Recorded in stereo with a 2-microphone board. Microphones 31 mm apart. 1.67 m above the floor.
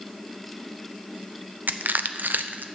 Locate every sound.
1.7 s crushing: 80° right, 0.7 m